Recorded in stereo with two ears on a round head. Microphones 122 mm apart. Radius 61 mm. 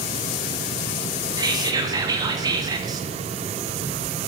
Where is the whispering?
30° right (ahead or behind), 0.8 m.